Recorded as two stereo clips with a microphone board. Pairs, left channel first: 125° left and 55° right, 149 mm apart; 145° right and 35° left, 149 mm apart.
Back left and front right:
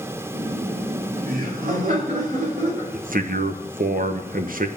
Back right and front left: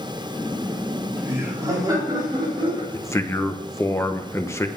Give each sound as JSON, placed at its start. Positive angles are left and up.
{"t": 0.3, "sound": "laughter", "azimuth_deg": -60, "distance_m": 2.0}
{"t": 2.9, "sound": "a man speaking", "azimuth_deg": -75, "distance_m": 1.0}